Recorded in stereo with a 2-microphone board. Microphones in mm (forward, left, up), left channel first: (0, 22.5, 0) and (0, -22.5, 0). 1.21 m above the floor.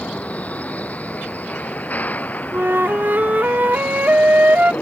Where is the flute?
45° right (ahead or behind).